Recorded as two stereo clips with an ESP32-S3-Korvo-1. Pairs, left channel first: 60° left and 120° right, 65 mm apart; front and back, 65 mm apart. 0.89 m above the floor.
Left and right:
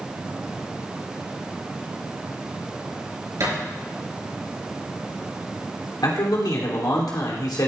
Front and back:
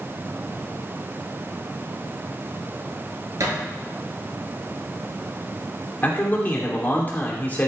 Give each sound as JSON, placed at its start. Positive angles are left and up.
{"t": 3.4, "sound": "a thud", "azimuth_deg": -150, "distance_m": 3.5}
{"t": 6.0, "sound": "a man speaking", "azimuth_deg": 60, "distance_m": 2.5}